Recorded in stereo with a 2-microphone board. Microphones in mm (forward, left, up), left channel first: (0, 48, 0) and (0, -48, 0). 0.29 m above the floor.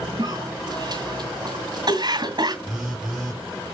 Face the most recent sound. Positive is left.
turn(degrees=0)  # may be behind; listen again after turning